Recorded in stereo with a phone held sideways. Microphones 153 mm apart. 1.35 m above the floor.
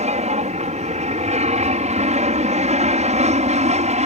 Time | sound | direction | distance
0.0 | an aircraft | 50° right (ahead or behind) | ?